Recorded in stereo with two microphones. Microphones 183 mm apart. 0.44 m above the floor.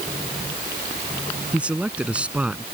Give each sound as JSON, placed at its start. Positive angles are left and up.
{"t": 1.5, "sound": "a man speaking", "side_deg": -5}